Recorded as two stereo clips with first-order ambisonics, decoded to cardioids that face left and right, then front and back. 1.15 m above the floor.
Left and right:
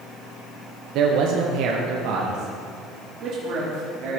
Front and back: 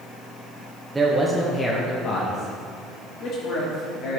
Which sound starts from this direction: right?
A man speaking, at 0.9 s.